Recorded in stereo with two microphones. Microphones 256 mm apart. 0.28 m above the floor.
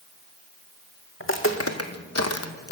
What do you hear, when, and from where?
1.2 s footsteps: 50° left (ahead or behind), 1.2 m; by 2.7 s 60° left (ahead or behind), 0.9 m